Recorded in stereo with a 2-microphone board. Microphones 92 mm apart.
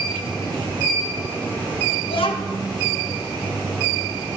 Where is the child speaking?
75° left (ahead or behind), 1.0 m.